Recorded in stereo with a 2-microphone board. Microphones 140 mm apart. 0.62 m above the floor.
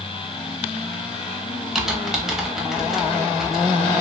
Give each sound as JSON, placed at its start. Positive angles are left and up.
{"t": 1.8, "sound": "typing on a keyboard", "side_deg": -5, "distance_m": 0.6}